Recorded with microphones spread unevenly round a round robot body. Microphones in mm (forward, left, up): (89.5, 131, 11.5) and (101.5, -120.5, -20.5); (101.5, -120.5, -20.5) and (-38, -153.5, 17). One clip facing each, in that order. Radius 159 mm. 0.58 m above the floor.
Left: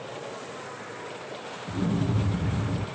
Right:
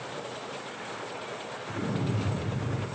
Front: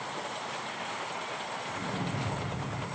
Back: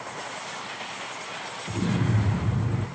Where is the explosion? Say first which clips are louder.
Left 4 dB, back 10 dB; 145° left, 6 m.